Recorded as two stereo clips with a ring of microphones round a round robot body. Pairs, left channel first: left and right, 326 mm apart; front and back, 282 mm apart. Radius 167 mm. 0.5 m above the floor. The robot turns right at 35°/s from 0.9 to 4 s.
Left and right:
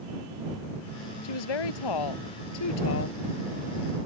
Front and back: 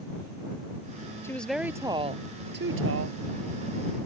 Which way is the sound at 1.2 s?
80° left.